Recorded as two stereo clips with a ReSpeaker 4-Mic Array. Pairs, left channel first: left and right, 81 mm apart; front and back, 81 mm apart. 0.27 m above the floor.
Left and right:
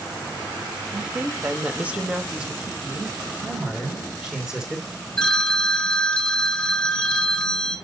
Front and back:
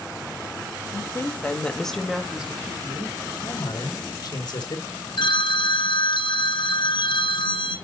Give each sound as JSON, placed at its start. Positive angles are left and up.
{"t": 0.9, "sound": "a woman speaking", "azimuth_deg": -30, "distance_m": 1.3}
{"t": 3.4, "sound": "a man speaking", "azimuth_deg": -15, "distance_m": 2.5}
{"t": 5.2, "sound": "a phone ringing", "azimuth_deg": 10, "distance_m": 1.6}